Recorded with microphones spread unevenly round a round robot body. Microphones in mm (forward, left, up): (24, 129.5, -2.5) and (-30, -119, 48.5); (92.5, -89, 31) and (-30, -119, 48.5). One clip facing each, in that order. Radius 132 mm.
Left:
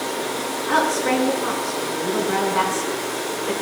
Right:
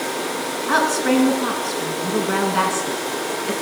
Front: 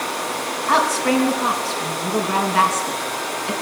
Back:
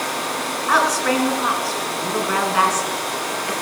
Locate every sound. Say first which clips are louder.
0.7 s a woman speaking: right 3 dB, front 1 dB; 50° right, 6 m